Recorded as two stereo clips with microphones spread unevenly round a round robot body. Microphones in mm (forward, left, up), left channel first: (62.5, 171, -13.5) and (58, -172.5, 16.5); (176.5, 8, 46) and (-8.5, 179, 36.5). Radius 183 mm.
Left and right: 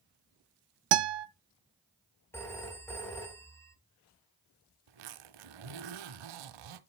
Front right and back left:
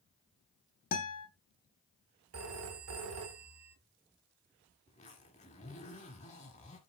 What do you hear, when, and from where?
0.9 s a guitar: 105° right, 0.7 m
2.3 s a phone ringing: 170° left, 1.0 m
4.9 s a zipper: 115° right, 0.9 m